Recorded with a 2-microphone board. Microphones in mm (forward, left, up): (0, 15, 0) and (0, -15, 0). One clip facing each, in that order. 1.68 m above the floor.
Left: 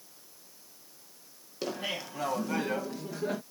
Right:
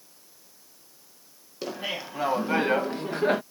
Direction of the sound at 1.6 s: Centre (ahead or behind).